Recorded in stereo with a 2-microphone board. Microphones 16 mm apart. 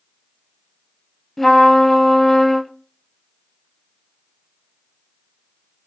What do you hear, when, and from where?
1.4 s a trumpet: 15° left (ahead or behind), 0.7 m